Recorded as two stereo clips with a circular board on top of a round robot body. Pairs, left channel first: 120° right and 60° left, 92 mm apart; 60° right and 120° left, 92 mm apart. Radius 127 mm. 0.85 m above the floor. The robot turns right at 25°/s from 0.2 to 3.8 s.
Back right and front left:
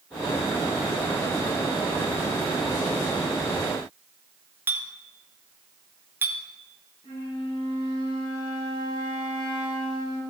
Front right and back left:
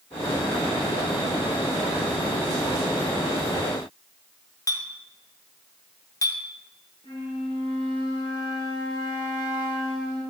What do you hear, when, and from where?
4.7 s a clink: 10° right, 1.0 m
7.0 s a flute: 90° right, 4.5 m